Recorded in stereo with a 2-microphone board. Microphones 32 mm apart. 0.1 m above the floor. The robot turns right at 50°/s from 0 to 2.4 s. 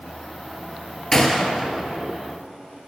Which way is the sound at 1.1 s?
15° left (ahead or behind).